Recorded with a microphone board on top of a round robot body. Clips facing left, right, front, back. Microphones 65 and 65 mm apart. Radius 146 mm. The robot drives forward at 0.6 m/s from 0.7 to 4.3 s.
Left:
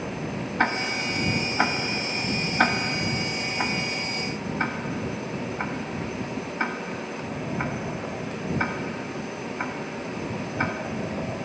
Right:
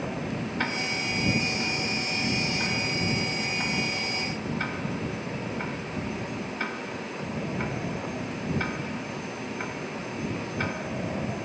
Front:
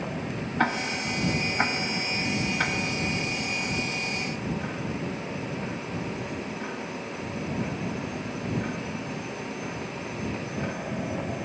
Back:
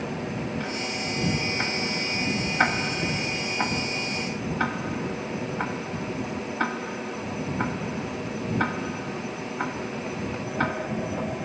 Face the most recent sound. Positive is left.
turn(degrees=155)